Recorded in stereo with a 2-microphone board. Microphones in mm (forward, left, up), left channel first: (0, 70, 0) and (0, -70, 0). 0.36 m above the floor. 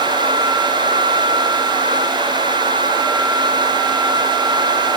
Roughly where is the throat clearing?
No throat clearing in this recording.